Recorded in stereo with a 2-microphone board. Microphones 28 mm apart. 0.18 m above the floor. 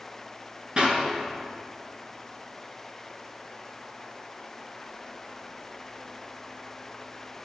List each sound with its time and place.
0.8 s a clap: 40° right (ahead or behind), 2.5 m